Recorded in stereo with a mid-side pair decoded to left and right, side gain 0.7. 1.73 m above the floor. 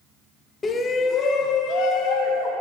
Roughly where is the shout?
Ahead left.